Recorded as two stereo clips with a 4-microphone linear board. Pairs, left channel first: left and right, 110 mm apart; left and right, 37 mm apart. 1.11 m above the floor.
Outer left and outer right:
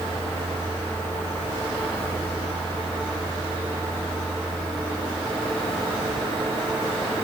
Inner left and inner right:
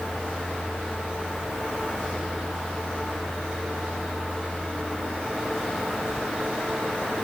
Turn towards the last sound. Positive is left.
No sound to turn to.